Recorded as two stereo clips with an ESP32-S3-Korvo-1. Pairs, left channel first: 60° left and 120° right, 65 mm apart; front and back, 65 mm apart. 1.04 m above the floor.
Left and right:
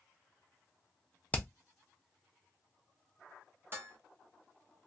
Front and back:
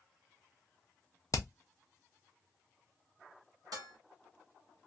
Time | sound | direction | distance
1.3 | hammering | straight ahead | 0.6 m
3.7 | dishes clattering | 175° right | 1.2 m